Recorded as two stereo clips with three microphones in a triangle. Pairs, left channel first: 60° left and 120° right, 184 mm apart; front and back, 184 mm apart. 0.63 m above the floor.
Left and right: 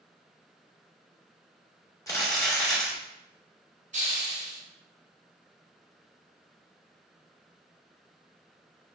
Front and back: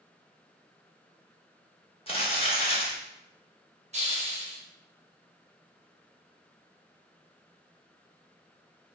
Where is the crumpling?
5° left, 0.7 m.